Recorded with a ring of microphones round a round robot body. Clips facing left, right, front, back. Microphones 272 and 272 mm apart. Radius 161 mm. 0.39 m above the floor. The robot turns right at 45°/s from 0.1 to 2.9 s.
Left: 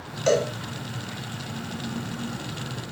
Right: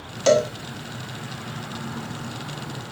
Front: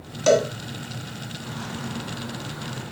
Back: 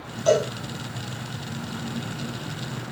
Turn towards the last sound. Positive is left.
turn(degrees=60)